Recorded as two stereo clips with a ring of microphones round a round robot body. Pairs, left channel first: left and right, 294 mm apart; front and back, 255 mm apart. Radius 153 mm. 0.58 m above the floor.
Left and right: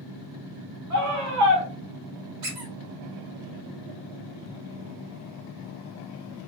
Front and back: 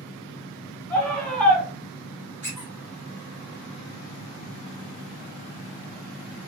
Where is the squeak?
95° right, 1.5 m.